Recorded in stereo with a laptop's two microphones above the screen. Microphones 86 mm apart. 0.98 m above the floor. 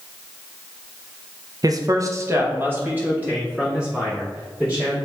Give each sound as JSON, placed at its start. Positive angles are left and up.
{"t": 1.6, "sound": "a man speaking", "side_deg": -45, "distance_m": 0.5}